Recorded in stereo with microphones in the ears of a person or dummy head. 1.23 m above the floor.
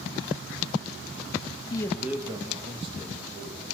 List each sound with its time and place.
1.7 s a man speaking: 25° left (ahead or behind), 0.7 m; by 3.8 s 40° right (ahead or behind), 2.5 m